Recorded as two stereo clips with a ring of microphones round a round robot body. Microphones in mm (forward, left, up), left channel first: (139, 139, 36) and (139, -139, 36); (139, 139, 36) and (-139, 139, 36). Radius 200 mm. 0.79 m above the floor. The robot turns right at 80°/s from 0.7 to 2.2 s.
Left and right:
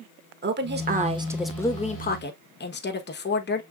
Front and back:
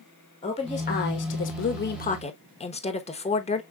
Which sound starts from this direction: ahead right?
A woman speaking, at 0.4 s.